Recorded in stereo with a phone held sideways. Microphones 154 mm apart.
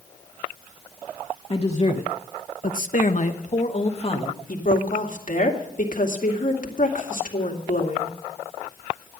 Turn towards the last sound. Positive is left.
turn(degrees=60)  # may be behind; listen again after turning